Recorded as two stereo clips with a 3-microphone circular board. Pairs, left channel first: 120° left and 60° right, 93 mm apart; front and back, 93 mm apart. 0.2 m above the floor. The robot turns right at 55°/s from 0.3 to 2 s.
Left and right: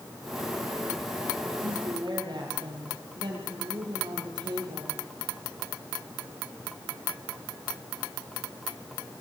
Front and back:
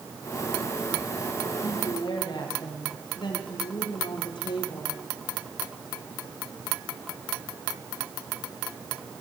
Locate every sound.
1.6 s a woman speaking: 50° right, 6.5 m; by 5.0 s 30° right, 6.5 m